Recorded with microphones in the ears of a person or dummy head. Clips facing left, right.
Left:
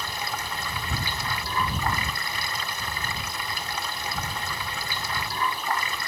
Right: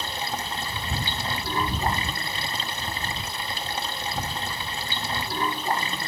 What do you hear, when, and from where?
0.0 s running water: 25° right (ahead or behind)